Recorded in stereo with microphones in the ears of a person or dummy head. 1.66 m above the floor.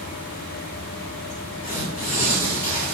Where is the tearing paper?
45° left (ahead or behind), 1.0 m.